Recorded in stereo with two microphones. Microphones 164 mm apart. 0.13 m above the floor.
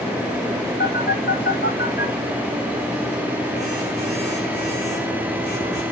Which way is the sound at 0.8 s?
70° left (ahead or behind).